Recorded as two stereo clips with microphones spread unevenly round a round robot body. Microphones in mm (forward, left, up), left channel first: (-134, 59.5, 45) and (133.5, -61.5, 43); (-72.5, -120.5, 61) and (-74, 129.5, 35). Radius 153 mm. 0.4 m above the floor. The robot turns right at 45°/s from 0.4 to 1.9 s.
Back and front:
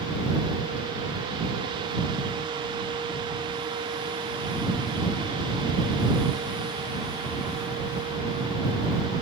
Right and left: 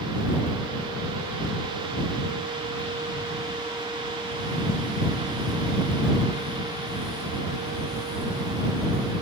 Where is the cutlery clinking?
I don't hear cutlery clinking.